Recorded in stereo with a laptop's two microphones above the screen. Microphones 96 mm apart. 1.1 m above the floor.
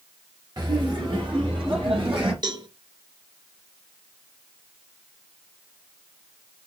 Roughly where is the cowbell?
Right.